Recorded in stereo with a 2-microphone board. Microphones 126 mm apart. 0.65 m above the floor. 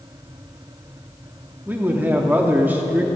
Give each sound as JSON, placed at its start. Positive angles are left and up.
{"t": 1.7, "sound": "a man speaking", "side_deg": -15, "distance_m": 1.0}